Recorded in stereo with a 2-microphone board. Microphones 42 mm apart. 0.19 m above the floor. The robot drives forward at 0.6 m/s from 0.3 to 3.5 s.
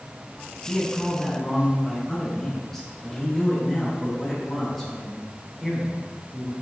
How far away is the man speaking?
About 1.3 m.